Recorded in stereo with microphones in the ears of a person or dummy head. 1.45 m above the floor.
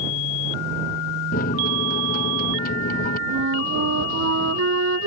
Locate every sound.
1.3 s a microwave: 45° left (ahead or behind)
3.3 s a flute: 80° right